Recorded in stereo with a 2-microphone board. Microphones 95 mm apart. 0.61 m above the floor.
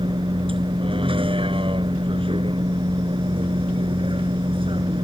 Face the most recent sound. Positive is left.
turn(degrees=-70)  # may be behind; listen again after turning